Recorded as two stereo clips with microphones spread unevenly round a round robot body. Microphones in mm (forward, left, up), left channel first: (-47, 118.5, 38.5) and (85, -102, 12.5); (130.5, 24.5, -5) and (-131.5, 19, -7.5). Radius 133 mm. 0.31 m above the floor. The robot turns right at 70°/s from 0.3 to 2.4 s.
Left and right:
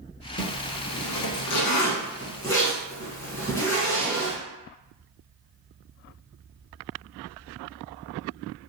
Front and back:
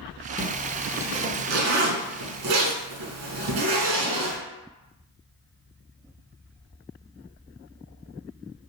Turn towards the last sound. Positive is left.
turn(degrees=-160)